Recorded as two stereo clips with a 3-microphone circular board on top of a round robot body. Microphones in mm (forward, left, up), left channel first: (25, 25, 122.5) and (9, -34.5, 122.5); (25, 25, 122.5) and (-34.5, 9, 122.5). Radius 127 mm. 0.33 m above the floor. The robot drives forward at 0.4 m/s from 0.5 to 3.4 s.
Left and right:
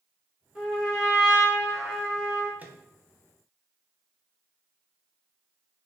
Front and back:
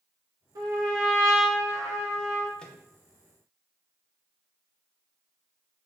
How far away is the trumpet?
About 1.7 m.